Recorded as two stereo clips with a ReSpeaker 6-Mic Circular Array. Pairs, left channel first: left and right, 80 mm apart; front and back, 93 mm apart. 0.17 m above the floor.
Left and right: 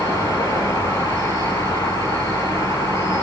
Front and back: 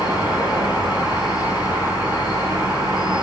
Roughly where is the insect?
Ahead left.